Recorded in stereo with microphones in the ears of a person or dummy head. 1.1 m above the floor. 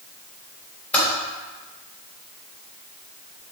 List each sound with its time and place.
0.9 s typing on a keyboard: 10° left (ahead or behind), 3 m